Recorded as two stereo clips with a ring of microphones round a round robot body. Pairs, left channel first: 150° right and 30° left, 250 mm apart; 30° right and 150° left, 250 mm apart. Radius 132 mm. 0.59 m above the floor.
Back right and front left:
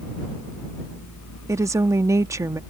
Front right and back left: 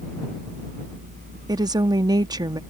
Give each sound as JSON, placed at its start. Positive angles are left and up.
{"t": 1.5, "sound": "a woman speaking", "azimuth_deg": 95}